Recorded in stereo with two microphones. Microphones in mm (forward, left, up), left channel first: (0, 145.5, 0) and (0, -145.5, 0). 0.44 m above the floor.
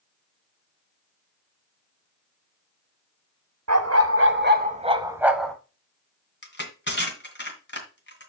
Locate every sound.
3.7 s a dog barking: 65° right (ahead or behind), 1.0 m; by 5.5 s 5° left (ahead or behind), 1.0 m
6.4 s crushing: 40° left (ahead or behind), 2 m